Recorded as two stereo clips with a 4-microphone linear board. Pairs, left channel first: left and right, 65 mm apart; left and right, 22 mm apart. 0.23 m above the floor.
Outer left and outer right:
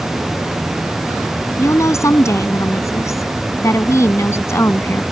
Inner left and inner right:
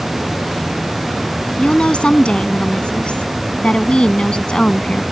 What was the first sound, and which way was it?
A woman speaking, 50° left (ahead or behind).